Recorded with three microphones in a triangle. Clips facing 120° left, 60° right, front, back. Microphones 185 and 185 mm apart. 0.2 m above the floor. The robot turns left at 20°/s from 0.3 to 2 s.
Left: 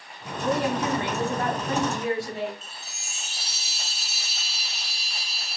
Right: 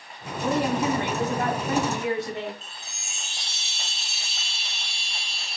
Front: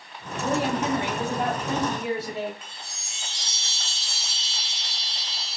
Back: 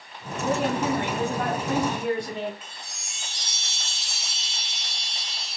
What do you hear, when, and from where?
0.4 s a woman speaking: 45° right, 1.6 m; by 2.5 s 75° right, 1.6 m
2.6 s a chime: 155° right, 0.9 m